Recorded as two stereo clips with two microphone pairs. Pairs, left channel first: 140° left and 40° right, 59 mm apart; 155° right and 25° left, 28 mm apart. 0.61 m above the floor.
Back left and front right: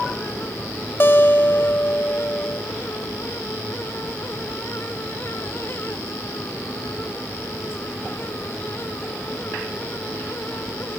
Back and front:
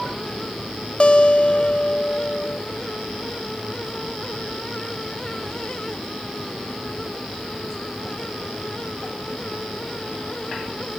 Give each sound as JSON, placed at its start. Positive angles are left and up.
{"t": 1.0, "sound": "a guitar", "azimuth_deg": 180, "distance_m": 0.8}